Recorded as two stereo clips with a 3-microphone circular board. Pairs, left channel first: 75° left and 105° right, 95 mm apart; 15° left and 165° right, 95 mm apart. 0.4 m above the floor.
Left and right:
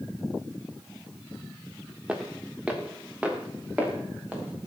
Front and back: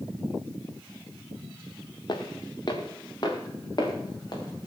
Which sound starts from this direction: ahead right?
Footsteps, at 2.1 s.